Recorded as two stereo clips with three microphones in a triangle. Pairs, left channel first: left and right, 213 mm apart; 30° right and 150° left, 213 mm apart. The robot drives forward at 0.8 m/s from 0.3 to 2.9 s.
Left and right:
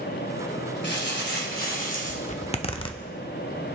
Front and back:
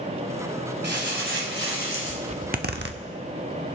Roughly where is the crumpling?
Behind left.